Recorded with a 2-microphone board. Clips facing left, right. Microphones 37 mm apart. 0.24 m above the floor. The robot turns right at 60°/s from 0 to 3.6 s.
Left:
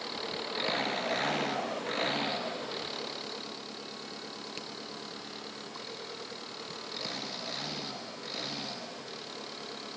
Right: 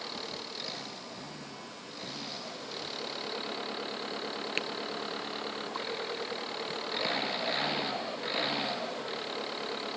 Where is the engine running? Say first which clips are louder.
Left 3 dB; 5° left; by 10.0 s 140° right.